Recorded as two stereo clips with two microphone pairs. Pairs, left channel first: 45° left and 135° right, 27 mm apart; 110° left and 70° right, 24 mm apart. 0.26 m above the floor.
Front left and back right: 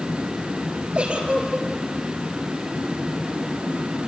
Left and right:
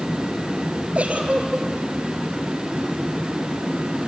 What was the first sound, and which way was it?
A giggle, 90° right.